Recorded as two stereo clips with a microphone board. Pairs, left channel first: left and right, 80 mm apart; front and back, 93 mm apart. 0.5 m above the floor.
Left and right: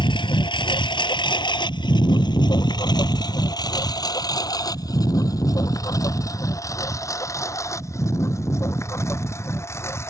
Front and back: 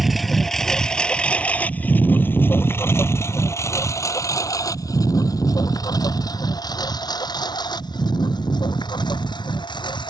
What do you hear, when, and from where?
0.0 s a lawn mower: 90° left; by 10.1 s 35° left